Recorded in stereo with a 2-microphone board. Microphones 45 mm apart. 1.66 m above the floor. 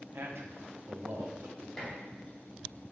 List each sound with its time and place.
0.1 s a man speaking: 65° right (ahead or behind), 1.6 m
1.8 s dishes clattering: 15° left (ahead or behind), 2.5 m